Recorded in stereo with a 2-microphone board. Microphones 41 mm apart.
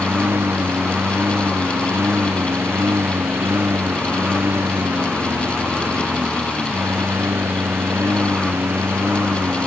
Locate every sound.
0.0 s a lawn mower: 85° right